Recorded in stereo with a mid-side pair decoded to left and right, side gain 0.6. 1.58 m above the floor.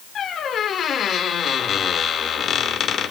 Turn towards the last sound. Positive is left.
turn(degrees=45)